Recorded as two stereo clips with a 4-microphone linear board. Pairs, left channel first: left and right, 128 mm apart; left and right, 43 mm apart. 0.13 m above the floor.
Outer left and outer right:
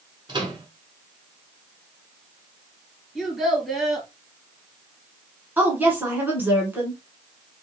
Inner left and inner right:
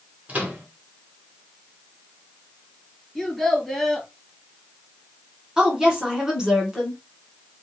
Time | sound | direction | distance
0.3 | a microwave | 35° right (ahead or behind) | 1.1 m
3.1 | a child speaking | centre (ahead or behind) | 2.0 m
5.6 | a woman speaking | 15° right (ahead or behind) | 1.3 m